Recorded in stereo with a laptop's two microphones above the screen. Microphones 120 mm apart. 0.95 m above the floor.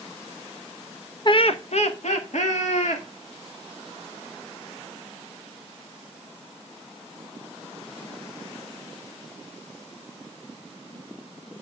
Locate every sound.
1.2 s laughter: 40° left (ahead or behind), 0.5 m; by 3.0 s 75° left (ahead or behind), 2.5 m